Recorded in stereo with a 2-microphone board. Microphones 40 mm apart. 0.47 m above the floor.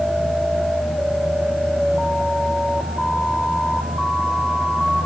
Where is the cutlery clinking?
I don't hear cutlery clinking.